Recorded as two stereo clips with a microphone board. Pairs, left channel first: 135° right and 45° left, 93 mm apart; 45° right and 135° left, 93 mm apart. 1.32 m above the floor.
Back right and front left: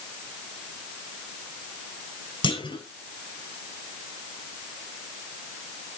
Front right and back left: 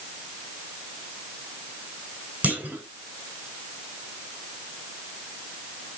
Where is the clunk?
155° right, 2 m.